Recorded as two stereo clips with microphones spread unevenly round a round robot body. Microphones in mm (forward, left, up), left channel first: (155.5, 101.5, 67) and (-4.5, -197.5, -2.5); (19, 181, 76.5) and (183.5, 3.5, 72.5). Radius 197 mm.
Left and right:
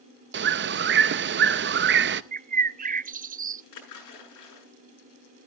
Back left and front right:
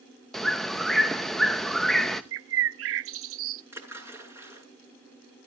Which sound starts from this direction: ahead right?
A bird, at 2.3 s.